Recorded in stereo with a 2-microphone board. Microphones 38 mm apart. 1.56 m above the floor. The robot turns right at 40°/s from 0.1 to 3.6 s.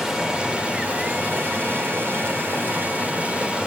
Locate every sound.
0.0 s running water: 170° right, 2.5 m; by 3.7 s 30° right, 2.5 m